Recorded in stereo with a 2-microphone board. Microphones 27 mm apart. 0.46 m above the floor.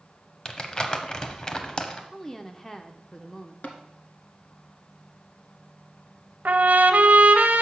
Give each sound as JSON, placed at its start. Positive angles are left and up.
{"t": 0.5, "sound": "crumpling", "side_deg": 30, "distance_m": 0.8}
{"t": 2.1, "sound": "a woman speaking", "side_deg": 20, "distance_m": 0.7}
{"t": 3.6, "sound": "tapping", "side_deg": 55, "distance_m": 1.1}
{"t": 6.5, "sound": "a trumpet", "side_deg": -75, "distance_m": 0.7}